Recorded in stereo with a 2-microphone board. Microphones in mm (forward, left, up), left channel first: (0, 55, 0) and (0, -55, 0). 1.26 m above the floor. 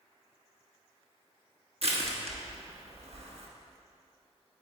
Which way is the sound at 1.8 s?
60° right (ahead or behind).